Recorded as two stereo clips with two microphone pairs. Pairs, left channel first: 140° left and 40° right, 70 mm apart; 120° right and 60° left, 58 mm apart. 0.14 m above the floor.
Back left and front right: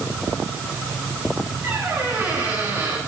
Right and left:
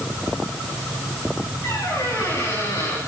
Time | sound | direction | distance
1.6 | a squeak | 95° right | 9.5 m